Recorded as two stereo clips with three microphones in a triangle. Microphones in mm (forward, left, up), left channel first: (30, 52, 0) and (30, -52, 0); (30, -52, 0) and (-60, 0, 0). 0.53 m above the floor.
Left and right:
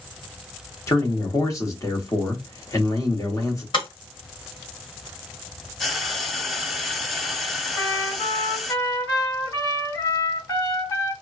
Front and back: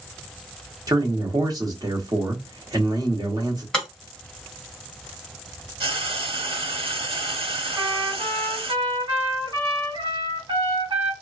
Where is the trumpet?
130° left, 1.7 m.